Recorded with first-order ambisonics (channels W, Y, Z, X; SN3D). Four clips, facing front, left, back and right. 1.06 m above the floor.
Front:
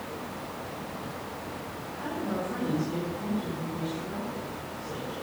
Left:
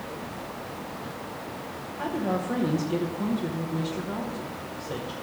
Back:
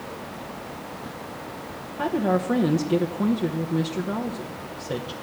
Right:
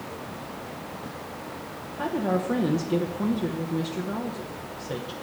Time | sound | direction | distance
2.0 | a woman speaking | 165° right | 0.7 m